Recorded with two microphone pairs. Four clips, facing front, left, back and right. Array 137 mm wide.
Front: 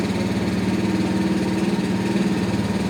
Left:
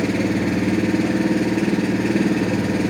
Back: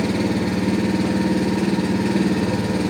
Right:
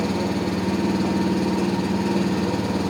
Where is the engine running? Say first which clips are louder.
Left 3 dB, back 2 dB; 110° left, 1.9 m.